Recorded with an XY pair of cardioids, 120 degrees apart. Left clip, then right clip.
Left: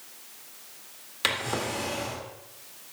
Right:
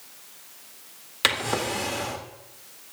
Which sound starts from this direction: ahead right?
A drawer, at 1.2 s.